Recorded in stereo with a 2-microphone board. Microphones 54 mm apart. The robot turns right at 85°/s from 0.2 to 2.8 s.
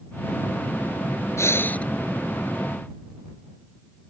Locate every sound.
1.4 s breathing: 115° left; by 1.9 s 160° left